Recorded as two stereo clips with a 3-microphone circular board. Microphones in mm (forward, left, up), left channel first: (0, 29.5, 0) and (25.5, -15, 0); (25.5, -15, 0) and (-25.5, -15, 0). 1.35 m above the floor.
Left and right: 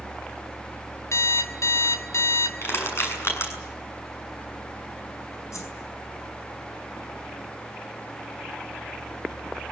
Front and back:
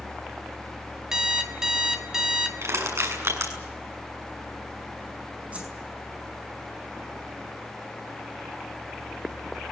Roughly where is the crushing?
Behind left.